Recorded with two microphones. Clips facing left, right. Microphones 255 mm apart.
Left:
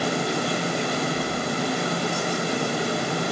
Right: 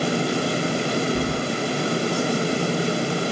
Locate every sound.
1.1 s keys jangling: 70° right (ahead or behind), 1.4 m